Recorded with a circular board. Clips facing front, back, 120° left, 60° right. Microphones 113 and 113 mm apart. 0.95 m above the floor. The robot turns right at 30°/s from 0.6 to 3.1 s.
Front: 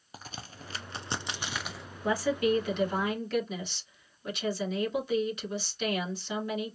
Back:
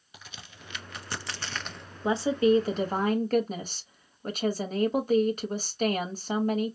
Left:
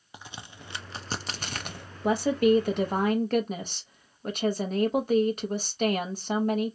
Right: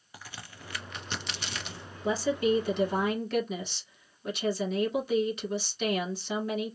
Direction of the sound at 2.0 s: 115° left.